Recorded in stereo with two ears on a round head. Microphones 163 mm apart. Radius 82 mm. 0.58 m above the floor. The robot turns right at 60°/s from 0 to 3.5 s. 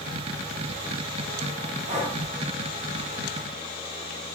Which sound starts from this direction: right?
Breathing, at 1.9 s.